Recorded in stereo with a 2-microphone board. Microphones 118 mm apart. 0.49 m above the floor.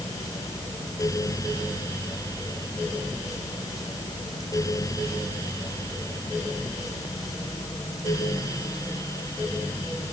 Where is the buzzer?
I don't hear a buzzer.